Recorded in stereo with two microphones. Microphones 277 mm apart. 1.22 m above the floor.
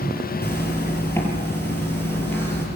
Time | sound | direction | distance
0.4 | a zipper | 10° left (ahead or behind) | 6.5 m